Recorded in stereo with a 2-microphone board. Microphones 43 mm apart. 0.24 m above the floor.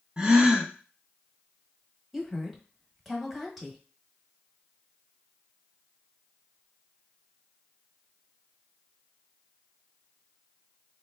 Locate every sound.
0.2 s a gasp: 20° right (ahead or behind), 0.8 m
2.1 s a woman speaking: 5° right (ahead or behind), 1.0 m